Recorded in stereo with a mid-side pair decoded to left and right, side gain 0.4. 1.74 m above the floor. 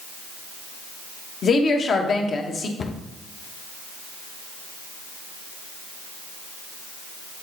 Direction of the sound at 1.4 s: 55° left.